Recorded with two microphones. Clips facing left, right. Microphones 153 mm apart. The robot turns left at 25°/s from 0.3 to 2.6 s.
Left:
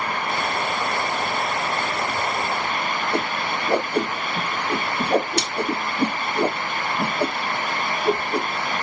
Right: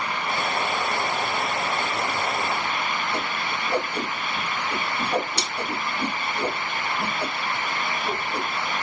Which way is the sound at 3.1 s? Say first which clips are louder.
Left 4 dB; 65° left (ahead or behind).